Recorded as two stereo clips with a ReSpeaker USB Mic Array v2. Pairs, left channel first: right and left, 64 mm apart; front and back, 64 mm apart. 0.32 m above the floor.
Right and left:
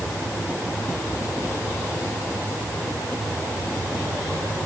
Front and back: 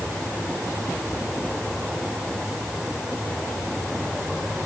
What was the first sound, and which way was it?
Only background noise.